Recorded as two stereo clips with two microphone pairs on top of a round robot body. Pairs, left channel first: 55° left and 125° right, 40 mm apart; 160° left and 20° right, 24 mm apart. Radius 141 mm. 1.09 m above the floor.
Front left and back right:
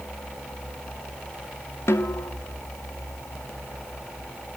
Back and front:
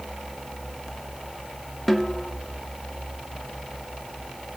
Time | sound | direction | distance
1.9 | a snare drum | 80° left | 0.8 m